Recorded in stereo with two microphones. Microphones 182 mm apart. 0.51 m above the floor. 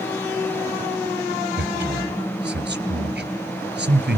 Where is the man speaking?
70° right (ahead or behind), 3 m.